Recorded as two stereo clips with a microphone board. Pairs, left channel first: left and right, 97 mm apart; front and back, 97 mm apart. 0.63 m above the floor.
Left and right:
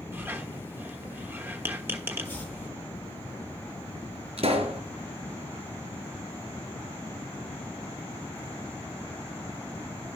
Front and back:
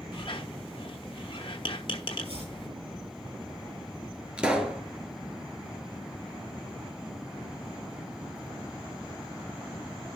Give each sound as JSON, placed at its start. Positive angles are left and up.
{"t": 0.1, "sound": "a squeak", "azimuth_deg": -25, "distance_m": 1.2}
{"t": 2.2, "sound": "chopping", "azimuth_deg": 165, "distance_m": 7.0}
{"t": 4.4, "sound": "a pop", "azimuth_deg": -100, "distance_m": 1.9}